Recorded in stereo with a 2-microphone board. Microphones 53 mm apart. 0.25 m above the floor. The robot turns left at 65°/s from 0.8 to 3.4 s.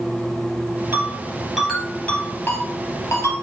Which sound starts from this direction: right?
A ringtone, at 0.9 s.